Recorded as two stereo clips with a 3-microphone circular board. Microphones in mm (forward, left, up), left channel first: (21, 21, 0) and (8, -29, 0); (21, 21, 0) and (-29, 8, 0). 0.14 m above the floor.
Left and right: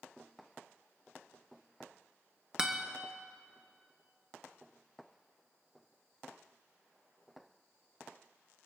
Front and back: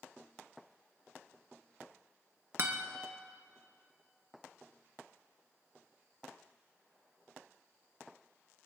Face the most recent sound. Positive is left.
turn(degrees=-175)